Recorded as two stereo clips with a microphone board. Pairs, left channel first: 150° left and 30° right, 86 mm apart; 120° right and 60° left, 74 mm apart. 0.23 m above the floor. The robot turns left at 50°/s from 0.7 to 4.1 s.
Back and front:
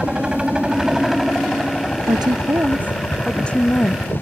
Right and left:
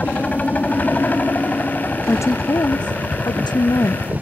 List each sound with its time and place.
0.0 s a helicopter: 95° right; by 4.2 s 95° left
2.1 s a woman speaking: 65° right; by 4.1 s 165° right